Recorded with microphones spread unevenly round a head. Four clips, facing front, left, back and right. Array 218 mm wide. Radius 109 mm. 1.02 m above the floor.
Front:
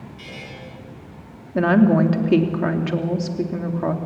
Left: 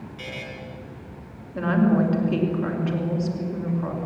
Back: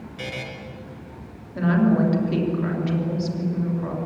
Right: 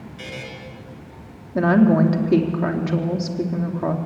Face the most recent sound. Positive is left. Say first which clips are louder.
# right 5 dB, front 4 dB
turn(degrees=-40)